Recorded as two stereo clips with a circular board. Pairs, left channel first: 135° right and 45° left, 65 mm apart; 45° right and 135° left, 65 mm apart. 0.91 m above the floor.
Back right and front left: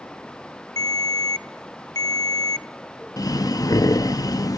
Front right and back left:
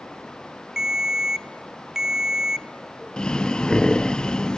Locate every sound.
0.8 s a ringtone: 145° right, 0.7 m
3.2 s breathing: 120° right, 0.5 m